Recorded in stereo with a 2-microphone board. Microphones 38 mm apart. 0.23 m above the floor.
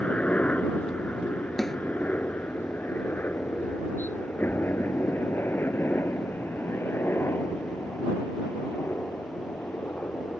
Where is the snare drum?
10° left (ahead or behind).